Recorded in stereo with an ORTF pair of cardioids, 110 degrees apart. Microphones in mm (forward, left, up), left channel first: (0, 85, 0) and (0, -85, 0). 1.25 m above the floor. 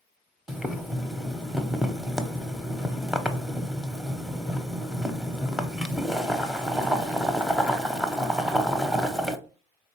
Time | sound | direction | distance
0.5 | boiling | straight ahead | 0.6 m